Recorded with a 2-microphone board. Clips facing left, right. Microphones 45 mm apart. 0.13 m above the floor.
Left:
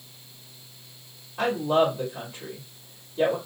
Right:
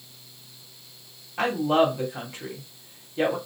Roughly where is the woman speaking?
Right.